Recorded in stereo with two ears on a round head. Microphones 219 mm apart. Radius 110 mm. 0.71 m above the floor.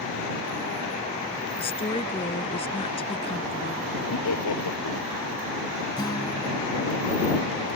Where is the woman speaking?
25° left (ahead or behind).